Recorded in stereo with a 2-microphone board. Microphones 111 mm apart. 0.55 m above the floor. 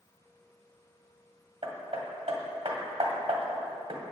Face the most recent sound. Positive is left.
turn(degrees=-60)  # may be behind; listen again after turning